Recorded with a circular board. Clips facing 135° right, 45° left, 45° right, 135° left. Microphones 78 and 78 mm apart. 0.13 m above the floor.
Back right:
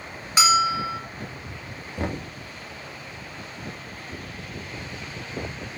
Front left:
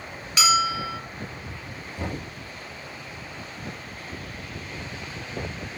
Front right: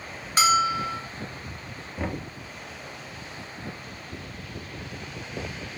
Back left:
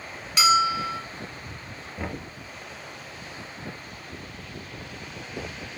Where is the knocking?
135° right, 1.4 m.